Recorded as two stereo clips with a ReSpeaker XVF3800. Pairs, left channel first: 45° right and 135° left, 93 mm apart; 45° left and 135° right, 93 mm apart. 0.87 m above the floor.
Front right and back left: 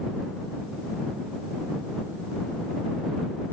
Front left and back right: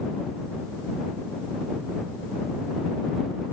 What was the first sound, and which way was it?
Only background noise.